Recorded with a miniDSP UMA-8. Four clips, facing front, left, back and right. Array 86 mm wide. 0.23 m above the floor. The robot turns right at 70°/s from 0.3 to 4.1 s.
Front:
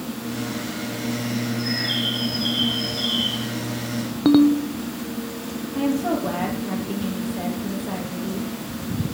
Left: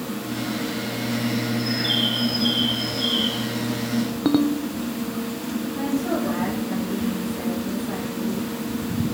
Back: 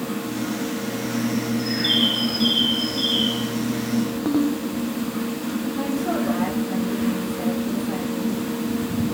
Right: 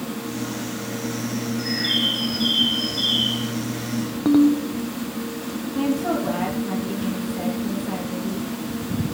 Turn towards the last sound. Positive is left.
turn(degrees=-25)